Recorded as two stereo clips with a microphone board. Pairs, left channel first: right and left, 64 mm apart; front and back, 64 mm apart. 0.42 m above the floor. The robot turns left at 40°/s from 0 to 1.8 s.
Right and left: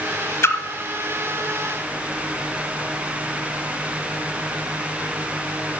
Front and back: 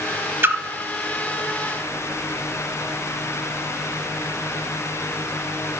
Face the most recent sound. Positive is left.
turn(degrees=175)